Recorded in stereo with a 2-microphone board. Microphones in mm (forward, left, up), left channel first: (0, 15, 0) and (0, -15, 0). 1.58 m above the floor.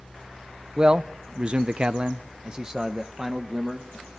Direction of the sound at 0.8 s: 30° right (ahead or behind).